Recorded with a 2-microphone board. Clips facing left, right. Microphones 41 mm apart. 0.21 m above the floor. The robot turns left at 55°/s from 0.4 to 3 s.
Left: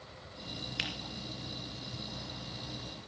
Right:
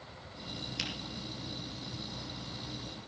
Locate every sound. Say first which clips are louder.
0.8 s a finger snap: left 2 dB; 30° left (ahead or behind), 3.5 m; by 0.9 s 25° left (ahead or behind), 3.5 m